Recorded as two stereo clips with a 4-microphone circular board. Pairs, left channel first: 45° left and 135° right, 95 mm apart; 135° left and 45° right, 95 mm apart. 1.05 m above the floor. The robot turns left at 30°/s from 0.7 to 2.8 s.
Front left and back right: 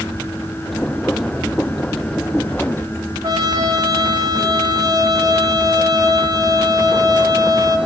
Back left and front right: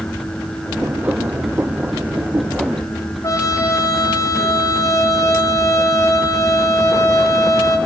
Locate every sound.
3.2 s a trumpet: 175° right, 1.8 m